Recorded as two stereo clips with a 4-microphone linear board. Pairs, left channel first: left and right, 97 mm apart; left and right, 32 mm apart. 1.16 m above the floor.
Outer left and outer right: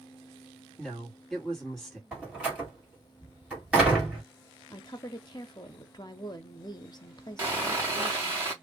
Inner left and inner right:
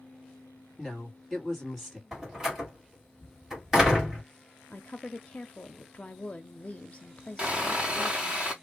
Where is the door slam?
10° right (ahead or behind), 1.9 m.